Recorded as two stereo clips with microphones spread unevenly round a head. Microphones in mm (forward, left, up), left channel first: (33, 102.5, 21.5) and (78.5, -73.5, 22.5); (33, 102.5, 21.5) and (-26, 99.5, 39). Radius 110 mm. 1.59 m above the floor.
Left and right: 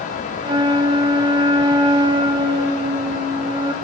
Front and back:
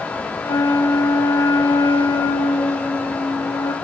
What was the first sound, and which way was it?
A flute, 20° right.